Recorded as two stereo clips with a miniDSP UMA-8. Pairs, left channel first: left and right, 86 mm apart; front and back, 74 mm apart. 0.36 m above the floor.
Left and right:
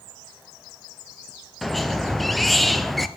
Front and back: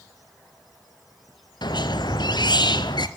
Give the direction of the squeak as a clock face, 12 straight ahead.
12 o'clock.